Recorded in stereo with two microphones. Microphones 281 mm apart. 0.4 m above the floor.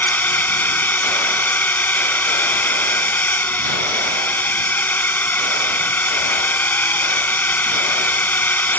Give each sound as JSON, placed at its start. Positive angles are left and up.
{"t": 0.0, "sound": "a drone", "side_deg": 5}